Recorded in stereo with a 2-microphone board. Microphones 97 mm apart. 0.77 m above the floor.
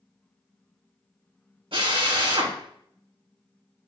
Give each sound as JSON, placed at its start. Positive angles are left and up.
{"t": 1.7, "sound": "a drill", "side_deg": -70, "distance_m": 3.0}